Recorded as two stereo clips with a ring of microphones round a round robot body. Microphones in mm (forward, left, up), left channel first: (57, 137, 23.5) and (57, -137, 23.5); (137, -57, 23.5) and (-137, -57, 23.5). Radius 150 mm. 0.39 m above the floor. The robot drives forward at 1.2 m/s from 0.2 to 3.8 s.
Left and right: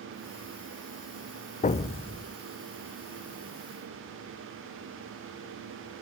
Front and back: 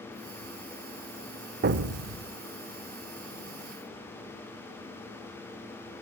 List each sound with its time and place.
1.6 s an explosion: 140° left, 0.8 m; by 2.4 s 165° left, 1.4 m